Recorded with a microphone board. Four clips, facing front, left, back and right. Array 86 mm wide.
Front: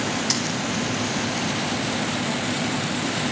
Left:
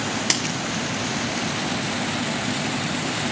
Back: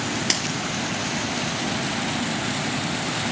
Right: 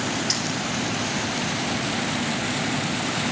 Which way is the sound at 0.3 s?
125° left.